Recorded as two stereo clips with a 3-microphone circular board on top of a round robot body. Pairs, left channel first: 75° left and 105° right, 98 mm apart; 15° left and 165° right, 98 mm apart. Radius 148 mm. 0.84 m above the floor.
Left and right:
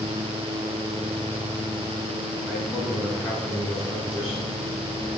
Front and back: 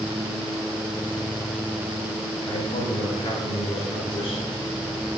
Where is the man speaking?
15° right, 8 m.